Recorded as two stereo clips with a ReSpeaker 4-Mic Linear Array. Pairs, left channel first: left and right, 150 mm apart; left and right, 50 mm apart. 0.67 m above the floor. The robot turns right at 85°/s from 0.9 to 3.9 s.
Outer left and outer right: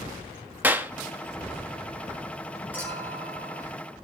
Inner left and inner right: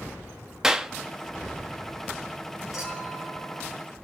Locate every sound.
0.6 s a clap: 10° right (ahead or behind), 0.8 m
2.7 s a clink: 170° right, 6 m; by 3.7 s 90° right, 6 m